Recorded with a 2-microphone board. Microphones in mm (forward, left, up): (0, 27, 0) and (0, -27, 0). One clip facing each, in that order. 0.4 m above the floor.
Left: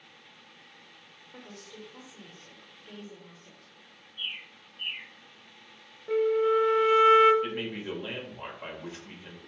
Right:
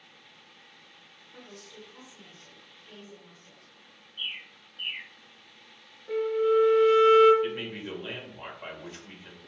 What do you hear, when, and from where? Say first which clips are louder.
1.3 s a woman speaking: left 1 dB; 30° left (ahead or behind), 1.0 m
4.2 s a bird: right 1 dB; 70° right (ahead or behind), 0.7 m
6.1 s a flute: left 1 dB; 15° left (ahead or behind), 0.5 m
7.4 s a man speaking: even; 5° left (ahead or behind), 1.1 m